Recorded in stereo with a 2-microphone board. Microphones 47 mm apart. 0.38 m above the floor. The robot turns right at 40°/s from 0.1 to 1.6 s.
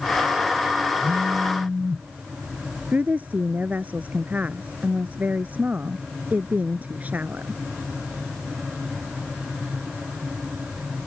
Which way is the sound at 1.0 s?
45° right (ahead or behind).